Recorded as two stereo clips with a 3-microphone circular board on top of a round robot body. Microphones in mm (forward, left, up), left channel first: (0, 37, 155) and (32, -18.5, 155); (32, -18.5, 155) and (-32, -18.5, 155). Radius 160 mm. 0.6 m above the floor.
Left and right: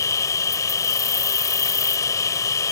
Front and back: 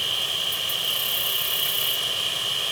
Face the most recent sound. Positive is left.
turn(degrees=90)